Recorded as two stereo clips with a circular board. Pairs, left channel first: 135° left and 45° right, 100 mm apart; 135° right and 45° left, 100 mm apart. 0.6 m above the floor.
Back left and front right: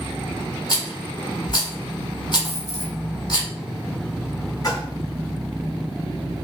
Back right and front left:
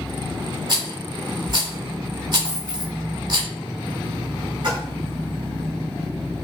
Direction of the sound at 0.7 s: 90° left.